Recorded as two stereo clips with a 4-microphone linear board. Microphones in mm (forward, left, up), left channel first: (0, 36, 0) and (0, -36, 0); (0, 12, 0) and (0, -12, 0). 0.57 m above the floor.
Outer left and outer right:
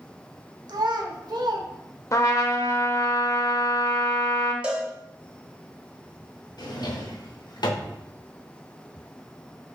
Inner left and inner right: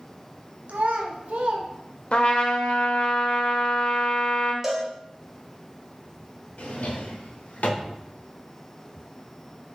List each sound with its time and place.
0.7 s a child speaking: 70° right (ahead or behind), 1.0 m
2.1 s a trumpet: 45° left (ahead or behind), 0.7 m
4.6 s a cowbell: 15° right (ahead or behind), 0.8 m
6.6 s a drawer: 70° left (ahead or behind), 0.8 m